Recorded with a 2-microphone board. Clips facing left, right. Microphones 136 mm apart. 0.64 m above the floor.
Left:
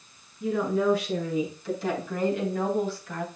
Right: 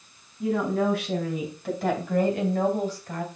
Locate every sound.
0.4 s a woman speaking: 70° right (ahead or behind), 4.5 m; by 3.3 s 40° right (ahead or behind), 3 m